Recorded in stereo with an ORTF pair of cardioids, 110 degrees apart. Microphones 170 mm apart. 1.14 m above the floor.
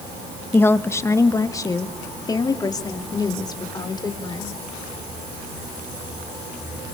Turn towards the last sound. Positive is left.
turn(degrees=25)